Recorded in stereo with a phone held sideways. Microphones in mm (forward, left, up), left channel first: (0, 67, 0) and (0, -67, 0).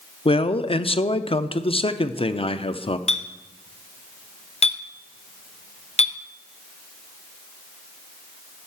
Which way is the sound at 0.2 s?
45° left (ahead or behind).